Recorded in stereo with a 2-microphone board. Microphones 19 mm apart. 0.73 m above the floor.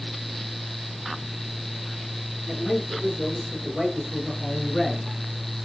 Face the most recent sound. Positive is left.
turn(degrees=15)  # may be behind; listen again after turning